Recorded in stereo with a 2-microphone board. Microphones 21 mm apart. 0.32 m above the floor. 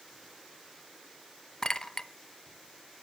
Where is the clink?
30° left (ahead or behind), 0.7 m.